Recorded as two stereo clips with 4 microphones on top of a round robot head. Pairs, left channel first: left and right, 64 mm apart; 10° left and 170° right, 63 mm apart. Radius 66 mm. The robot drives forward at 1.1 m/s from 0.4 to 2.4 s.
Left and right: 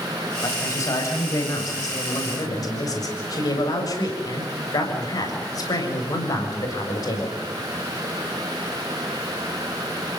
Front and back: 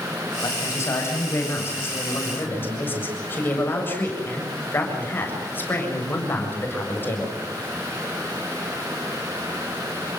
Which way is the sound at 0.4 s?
55° left.